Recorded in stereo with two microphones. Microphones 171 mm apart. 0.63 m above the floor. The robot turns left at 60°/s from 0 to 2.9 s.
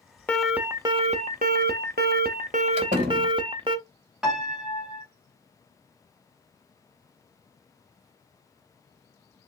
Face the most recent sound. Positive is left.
turn(degrees=-5)  # may be behind; listen again after turning